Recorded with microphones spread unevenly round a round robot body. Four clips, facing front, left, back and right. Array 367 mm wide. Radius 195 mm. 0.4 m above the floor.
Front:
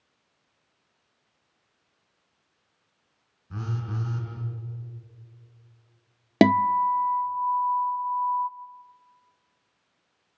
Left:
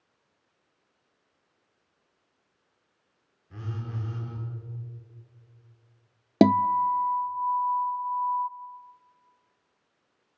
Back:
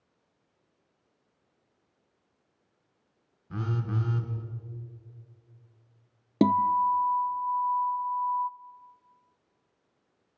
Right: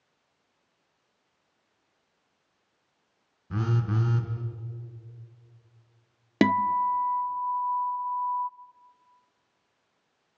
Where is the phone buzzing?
95° right, 3.5 m.